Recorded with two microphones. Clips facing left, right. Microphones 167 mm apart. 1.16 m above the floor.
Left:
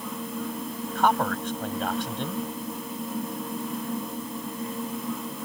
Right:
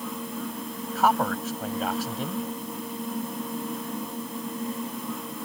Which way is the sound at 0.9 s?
5° right (ahead or behind).